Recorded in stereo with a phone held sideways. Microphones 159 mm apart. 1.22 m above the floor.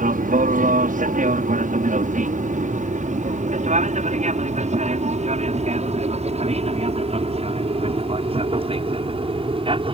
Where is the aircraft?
60° right (ahead or behind); by 9.9 s 35° right (ahead or behind).